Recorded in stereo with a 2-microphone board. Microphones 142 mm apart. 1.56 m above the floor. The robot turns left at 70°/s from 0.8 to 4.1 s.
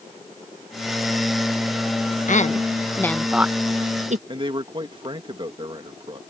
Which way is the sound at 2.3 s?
65° left (ahead or behind).